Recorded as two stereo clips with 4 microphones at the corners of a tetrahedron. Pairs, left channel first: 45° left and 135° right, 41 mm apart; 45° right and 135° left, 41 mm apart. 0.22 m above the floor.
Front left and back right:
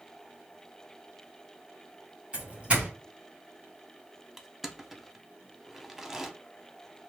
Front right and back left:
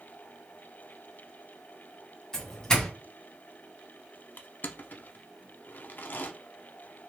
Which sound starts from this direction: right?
A doorbell, at 2.3 s.